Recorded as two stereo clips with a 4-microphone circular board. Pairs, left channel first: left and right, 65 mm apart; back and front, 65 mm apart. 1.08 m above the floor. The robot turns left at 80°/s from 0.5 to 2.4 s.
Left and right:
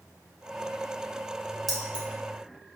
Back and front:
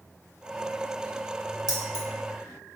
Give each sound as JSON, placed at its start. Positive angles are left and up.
{"t": 1.7, "sound": "keys jangling", "azimuth_deg": 5, "distance_m": 0.7}